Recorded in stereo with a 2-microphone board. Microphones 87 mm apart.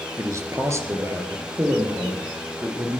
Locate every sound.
0.2 s a man speaking: 35° right (ahead or behind), 1.5 m; by 3.0 s 25° right (ahead or behind), 4.5 m